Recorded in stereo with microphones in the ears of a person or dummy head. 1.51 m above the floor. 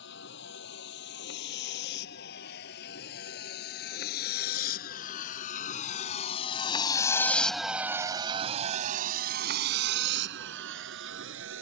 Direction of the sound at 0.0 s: 70° left (ahead or behind).